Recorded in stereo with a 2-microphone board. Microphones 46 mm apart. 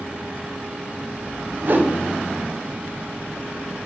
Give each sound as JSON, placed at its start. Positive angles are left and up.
{"t": 1.6, "sound": "a whoosh", "side_deg": -45, "distance_m": 0.6}